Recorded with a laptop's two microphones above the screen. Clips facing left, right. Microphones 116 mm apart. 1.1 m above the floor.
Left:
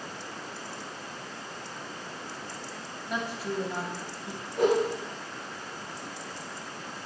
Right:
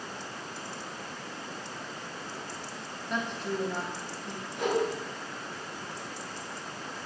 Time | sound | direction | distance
3.1 | a woman speaking | 5° left (ahead or behind) | 2 m
4.6 | a whoosh | 45° left (ahead or behind) | 4 m